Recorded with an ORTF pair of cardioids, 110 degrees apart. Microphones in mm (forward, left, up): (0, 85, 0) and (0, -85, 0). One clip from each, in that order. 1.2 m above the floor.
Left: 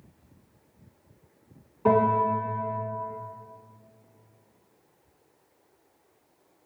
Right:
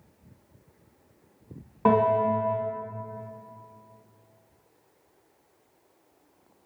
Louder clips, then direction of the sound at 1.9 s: Even; 45° right.